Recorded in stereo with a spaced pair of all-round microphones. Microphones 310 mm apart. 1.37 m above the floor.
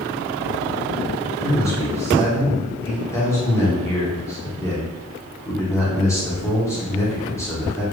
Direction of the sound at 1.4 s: 10° left (ahead or behind).